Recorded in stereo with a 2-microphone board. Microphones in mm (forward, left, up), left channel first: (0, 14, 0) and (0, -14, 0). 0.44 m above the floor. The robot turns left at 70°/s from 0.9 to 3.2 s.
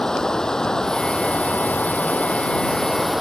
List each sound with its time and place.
0.0 s running water: 155° left; by 3.2 s 5° right